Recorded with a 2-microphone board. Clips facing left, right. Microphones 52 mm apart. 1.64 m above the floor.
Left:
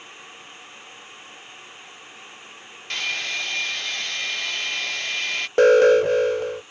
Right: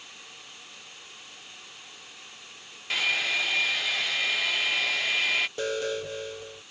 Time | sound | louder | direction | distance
2.9 | a hair dryer | right 1 dB | 5° right (ahead or behind) | ?
5.6 | an alarm | left 16 dB | 65° left (ahead or behind) | ?